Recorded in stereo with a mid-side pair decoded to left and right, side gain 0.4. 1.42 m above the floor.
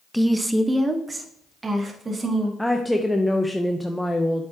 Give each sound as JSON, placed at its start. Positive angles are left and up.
{"t": 0.1, "sound": "a woman speaking", "azimuth_deg": -5, "distance_m": 1.1}
{"t": 2.6, "sound": "a woman speaking", "azimuth_deg": 5, "distance_m": 0.8}